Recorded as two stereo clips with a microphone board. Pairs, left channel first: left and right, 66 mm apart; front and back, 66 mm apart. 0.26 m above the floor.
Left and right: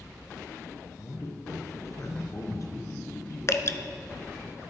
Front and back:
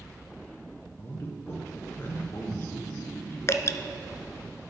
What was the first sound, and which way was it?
A man speaking, 50° left.